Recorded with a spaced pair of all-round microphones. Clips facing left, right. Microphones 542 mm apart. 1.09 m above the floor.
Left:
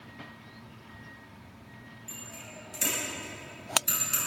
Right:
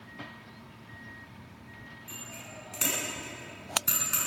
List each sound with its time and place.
2.1 s a bicycle bell: 90° right, 7.5 m; by 4.2 s 75° right (ahead or behind), 7.5 m